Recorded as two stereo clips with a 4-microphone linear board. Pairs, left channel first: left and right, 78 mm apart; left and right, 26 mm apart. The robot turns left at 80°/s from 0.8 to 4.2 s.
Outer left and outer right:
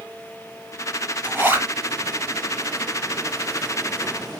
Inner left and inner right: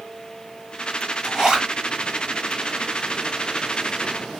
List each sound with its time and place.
1.2 s a zipper: 25° right (ahead or behind), 1.3 m